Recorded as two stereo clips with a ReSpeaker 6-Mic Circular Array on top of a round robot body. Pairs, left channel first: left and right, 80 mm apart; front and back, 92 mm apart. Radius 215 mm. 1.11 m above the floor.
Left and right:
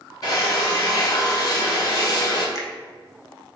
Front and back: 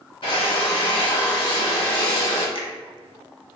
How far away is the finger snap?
About 0.8 m.